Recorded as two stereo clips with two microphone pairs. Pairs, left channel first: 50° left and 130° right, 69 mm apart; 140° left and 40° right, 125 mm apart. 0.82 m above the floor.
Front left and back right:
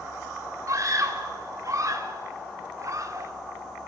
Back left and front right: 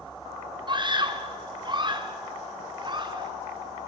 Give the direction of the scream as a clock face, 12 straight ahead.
3 o'clock.